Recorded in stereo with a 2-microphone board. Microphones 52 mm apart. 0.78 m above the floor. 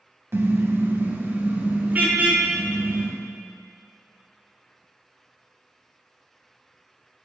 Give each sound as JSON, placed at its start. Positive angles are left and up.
{"t": 0.3, "sound": "a car horn", "side_deg": -55, "distance_m": 2.5}